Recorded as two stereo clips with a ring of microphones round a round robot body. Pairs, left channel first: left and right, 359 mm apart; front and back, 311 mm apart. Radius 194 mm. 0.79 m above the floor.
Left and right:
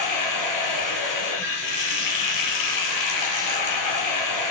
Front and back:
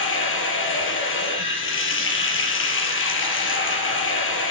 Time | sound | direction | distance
0.0 | running water | 50° left | 4 m